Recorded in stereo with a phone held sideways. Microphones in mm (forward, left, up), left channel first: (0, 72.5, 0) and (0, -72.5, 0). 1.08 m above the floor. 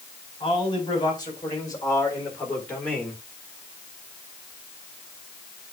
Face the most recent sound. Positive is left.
turn(degrees=5)  # may be behind; listen again after turning